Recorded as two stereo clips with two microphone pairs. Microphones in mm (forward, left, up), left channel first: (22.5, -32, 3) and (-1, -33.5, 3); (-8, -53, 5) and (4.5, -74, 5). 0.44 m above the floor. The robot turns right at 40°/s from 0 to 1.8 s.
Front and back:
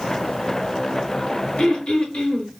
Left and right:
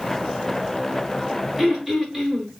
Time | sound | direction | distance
1.6 | throat clearing | 5° left | 1.0 m